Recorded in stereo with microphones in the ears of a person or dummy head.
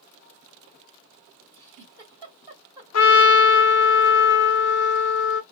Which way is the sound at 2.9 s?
75° left (ahead or behind).